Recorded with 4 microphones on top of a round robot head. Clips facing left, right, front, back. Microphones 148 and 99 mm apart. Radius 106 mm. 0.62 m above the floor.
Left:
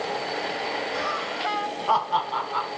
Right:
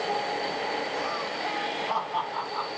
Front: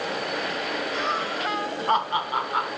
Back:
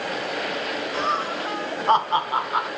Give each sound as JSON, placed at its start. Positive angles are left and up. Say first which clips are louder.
{"t": 0.9, "sound": "laughter", "louder": "left 2 dB, back 4 dB", "azimuth_deg": 130, "distance_m": 4.5}